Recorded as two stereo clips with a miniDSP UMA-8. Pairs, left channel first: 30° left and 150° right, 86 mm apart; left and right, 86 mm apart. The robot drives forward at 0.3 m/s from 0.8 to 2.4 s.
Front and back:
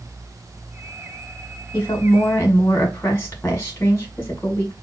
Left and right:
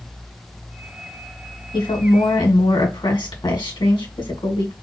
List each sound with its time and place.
1.7 s a woman speaking: 85° left, 1.8 m; by 4.7 s 90° left, 1.8 m